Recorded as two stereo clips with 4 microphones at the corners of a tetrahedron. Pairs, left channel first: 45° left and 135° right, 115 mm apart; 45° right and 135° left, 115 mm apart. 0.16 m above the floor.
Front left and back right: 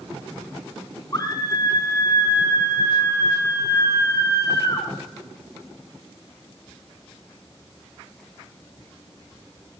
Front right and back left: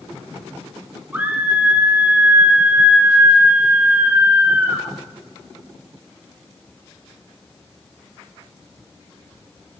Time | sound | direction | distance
1.1 | a scream | 70° left | 2 m